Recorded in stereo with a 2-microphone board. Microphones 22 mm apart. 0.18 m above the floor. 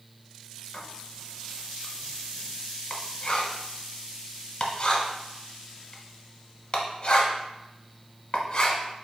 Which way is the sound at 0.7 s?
40° left (ahead or behind).